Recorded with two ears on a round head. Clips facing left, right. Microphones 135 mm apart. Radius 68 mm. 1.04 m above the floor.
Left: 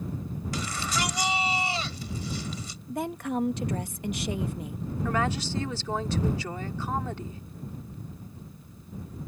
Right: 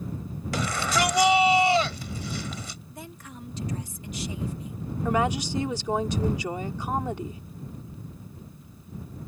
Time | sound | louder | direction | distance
0.5 | a shout | right 7 dB | 50° right (ahead or behind) | ?
2.9 | a woman speaking | left 12 dB | 50° left (ahead or behind) | ?
5.0 | a woman speaking | right 4 dB | 15° right (ahead or behind) | ?